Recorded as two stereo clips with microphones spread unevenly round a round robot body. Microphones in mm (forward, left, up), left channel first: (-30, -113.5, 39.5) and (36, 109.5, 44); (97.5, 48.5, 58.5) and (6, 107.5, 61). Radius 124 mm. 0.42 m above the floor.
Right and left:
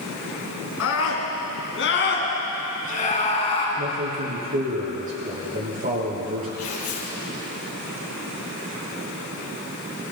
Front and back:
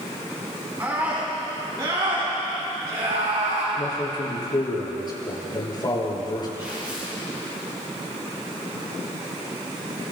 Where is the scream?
135° right, 5.5 m; by 3.7 s 175° right, 5 m.